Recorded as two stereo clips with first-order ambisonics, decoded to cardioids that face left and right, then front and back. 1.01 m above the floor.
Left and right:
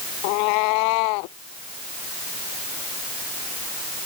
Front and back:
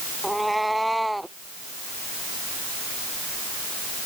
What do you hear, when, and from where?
0.2 s a cat meowing: 90° left